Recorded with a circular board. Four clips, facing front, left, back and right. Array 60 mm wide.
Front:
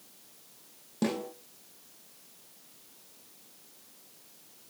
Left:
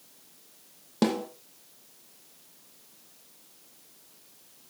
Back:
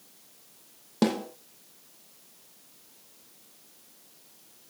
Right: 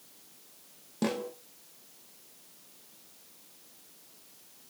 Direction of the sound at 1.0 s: 135° left.